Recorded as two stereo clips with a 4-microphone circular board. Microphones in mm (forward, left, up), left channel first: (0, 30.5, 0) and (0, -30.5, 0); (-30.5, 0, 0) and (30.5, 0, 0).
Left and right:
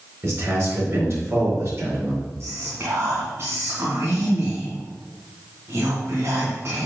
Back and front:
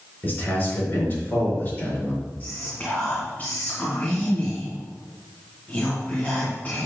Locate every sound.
0.2 s a man speaking: 130° right, 4.5 m
2.4 s whispering: 125° right, 2.5 m